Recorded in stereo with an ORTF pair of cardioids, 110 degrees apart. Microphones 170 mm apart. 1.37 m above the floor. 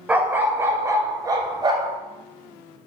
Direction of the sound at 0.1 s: 10° right.